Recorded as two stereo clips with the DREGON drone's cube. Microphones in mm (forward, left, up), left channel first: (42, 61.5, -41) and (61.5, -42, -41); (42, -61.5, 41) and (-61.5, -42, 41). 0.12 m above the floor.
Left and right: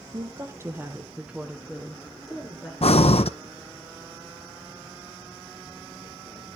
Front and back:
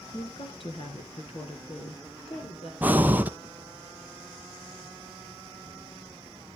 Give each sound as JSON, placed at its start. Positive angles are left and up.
{"t": 0.1, "sound": "a woman speaking", "azimuth_deg": -45, "distance_m": 1.6}
{"t": 2.8, "sound": "breathing", "azimuth_deg": 95, "distance_m": 0.6}